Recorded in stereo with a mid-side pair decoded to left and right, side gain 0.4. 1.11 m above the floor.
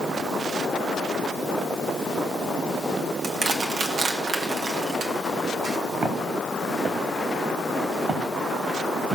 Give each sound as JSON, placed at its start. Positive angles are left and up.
{"t": 3.2, "sound": "crushing", "azimuth_deg": -60, "distance_m": 1.8}
{"t": 6.0, "sound": "footsteps", "azimuth_deg": -45, "distance_m": 4.0}